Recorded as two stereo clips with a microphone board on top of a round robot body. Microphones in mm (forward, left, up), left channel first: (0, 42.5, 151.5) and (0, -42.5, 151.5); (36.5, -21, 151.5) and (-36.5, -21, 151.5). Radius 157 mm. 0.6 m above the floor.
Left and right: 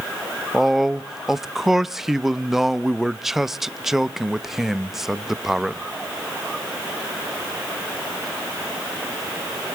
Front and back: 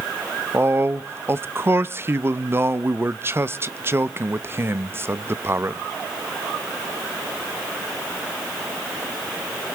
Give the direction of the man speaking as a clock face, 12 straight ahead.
6 o'clock.